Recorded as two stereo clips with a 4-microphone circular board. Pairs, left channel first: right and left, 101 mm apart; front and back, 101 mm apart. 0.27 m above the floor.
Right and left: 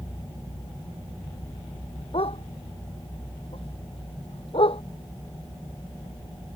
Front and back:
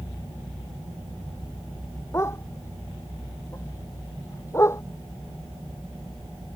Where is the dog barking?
65° right.